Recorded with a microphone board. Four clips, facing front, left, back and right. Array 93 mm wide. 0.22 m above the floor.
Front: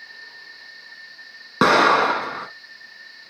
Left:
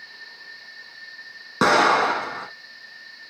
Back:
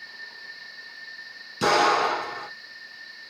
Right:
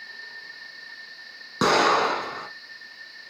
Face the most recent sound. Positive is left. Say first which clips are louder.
# left 2 dB, front 5 dB
turn(degrees=15)